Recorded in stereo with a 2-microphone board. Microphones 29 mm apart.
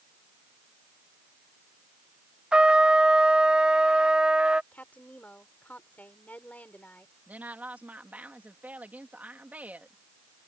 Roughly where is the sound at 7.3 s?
Right.